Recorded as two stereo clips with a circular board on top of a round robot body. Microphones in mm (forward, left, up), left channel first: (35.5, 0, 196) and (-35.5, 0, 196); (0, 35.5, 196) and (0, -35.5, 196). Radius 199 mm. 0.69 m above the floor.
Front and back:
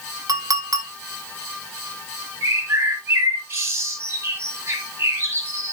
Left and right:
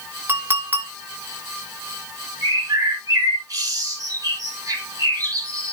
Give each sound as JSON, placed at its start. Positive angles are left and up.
{"t": 0.3, "sound": "a clink", "azimuth_deg": -150, "distance_m": 2.5}
{"t": 2.4, "sound": "a bird", "azimuth_deg": -130, "distance_m": 4.5}